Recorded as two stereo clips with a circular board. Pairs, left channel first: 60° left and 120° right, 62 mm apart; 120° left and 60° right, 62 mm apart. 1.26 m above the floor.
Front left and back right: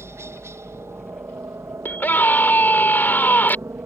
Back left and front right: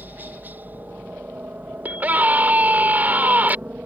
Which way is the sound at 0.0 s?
105° right.